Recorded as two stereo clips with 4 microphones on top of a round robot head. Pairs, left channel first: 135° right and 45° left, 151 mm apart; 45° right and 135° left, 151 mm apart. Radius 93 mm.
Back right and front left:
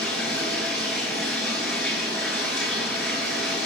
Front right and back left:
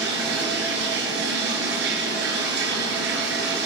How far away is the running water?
About 4.5 m.